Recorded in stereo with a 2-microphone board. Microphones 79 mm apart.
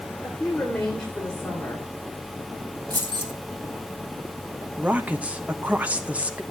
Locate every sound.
0.2 s a woman speaking: 10° left (ahead or behind), 3 m
2.9 s keys jangling: 60° right (ahead or behind), 2.5 m
4.8 s a woman speaking: 15° right (ahead or behind), 1.0 m